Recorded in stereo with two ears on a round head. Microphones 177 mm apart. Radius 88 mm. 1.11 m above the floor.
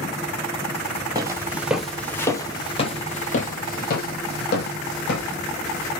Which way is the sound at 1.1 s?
20° right (ahead or behind).